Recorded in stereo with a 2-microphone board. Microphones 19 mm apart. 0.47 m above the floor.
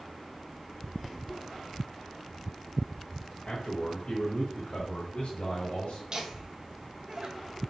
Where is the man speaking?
40° left (ahead or behind), 1.7 m; by 6.0 s 65° left (ahead or behind), 2.5 m.